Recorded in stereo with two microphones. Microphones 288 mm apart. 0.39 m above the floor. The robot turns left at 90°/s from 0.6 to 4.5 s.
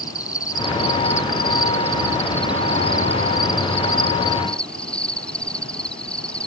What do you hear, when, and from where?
0.0 s an insect: 165° left; by 6.5 s 175° left